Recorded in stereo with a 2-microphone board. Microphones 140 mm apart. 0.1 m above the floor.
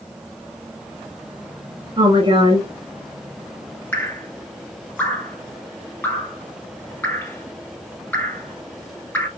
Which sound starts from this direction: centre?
Dripping, at 3.9 s.